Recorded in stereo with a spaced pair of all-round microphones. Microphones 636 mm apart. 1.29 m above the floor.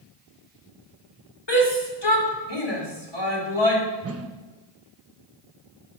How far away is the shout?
About 3.5 m.